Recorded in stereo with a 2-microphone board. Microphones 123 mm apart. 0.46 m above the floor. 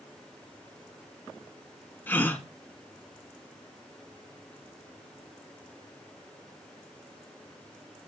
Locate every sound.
2.1 s a gasp: 15° left (ahead or behind), 1.2 m